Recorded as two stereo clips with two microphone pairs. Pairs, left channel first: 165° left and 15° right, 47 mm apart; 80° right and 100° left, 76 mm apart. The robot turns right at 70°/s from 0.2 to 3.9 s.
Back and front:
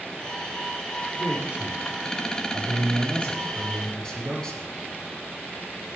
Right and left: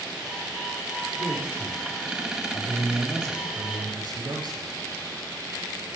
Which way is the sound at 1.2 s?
105° right.